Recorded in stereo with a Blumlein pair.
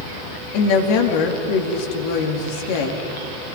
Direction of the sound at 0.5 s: 45° left.